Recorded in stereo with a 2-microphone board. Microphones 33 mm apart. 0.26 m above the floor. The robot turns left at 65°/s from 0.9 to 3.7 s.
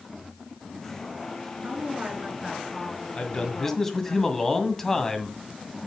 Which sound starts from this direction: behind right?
A woman speaking, at 1.6 s.